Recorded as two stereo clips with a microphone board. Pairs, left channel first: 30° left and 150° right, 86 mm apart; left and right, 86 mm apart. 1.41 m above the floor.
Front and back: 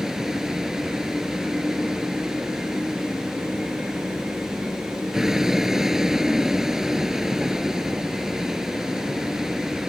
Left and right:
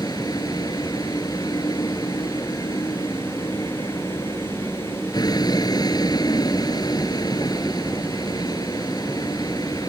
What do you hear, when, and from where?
0.0 s a vehicle: 125° left